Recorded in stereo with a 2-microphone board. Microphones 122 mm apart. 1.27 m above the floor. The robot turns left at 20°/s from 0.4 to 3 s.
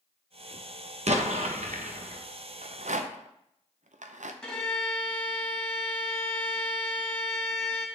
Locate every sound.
1.1 s an explosion: 65° right (ahead or behind), 0.8 m; by 2.2 s 80° right, 0.8 m
2.6 s a rattle: 70° right (ahead or behind), 0.6 m; by 4.3 s 80° right, 0.6 m
4.4 s a violin: 5° left (ahead or behind), 2.0 m